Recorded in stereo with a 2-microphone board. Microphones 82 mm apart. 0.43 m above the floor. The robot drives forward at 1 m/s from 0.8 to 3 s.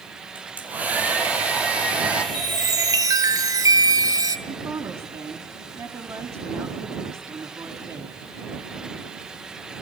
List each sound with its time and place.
0.3 s a hair dryer: 20° right (ahead or behind), 3.5 m; by 2.2 s 10° right (ahead or behind), 5 m
2.3 s a chime: 55° right (ahead or behind), 2.0 m; by 4.4 s 45° right (ahead or behind), 2.5 m
4.5 s a woman speaking: 30° right (ahead or behind), 3 m